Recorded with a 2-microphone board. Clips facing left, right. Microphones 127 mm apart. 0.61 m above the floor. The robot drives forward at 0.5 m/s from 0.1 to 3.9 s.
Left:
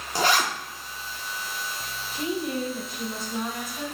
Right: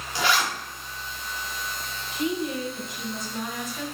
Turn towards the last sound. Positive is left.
turn(degrees=30)  # may be behind; listen again after turning